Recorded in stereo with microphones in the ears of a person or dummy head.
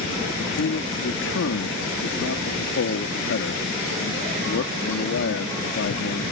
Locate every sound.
0.4 s a man speaking: 65° left (ahead or behind)